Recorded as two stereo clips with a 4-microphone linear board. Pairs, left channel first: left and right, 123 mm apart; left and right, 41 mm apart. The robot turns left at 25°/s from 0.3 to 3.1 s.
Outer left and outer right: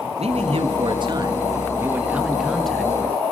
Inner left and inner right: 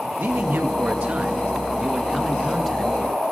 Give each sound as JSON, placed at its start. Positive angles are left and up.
{"t": 0.2, "sound": "a man speaking", "azimuth_deg": -125, "distance_m": 1.7}